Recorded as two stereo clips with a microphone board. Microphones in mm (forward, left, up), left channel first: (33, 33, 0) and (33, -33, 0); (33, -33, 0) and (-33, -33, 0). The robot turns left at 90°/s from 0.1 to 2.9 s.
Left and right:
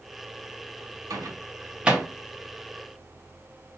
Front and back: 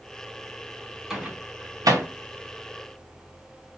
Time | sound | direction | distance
1.1 | a microwave | 95° right | 0.6 m